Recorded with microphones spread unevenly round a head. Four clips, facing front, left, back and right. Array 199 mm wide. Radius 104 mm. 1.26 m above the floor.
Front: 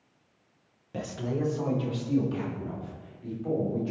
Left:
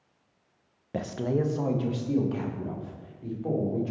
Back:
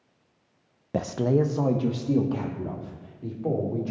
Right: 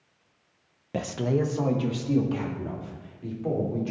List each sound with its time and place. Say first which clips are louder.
0.9 s a man speaking: right 2 dB, back 8 dB; 175° right, 0.9 m